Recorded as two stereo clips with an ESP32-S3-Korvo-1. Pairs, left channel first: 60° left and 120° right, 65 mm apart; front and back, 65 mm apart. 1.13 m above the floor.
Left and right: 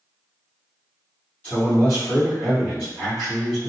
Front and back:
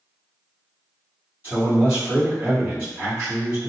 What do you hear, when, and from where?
1.4 s a man speaking: 125° left, 1.8 m